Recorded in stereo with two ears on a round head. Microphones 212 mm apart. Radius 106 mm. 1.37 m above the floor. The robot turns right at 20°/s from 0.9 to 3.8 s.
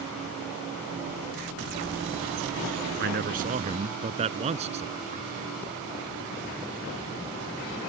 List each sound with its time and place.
3.0 s a man speaking: 45° right (ahead or behind); by 5.3 s 25° right (ahead or behind)